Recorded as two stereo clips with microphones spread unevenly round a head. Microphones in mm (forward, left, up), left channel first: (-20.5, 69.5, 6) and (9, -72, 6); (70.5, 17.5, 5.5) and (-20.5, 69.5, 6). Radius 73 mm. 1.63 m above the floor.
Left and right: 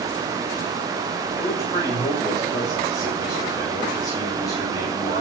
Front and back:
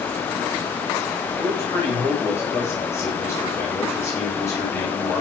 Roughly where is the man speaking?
Ahead left.